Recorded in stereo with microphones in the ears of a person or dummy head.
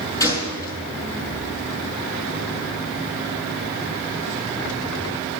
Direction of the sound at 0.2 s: 20° left (ahead or behind).